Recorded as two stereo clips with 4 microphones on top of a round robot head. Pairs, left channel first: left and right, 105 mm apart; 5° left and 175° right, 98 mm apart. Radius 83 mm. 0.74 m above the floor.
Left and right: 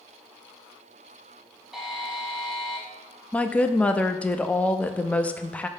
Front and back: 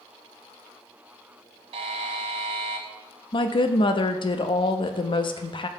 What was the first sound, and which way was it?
A buzzer, 175° right.